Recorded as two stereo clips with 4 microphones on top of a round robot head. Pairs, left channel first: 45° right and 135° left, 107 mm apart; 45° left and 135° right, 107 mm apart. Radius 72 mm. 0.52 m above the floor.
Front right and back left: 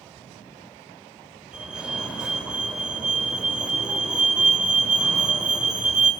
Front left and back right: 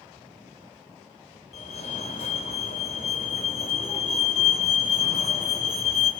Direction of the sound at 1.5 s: 55° left.